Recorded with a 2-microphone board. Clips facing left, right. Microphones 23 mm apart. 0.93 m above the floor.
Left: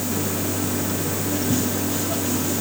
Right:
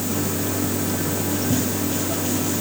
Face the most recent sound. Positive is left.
No sound to turn to.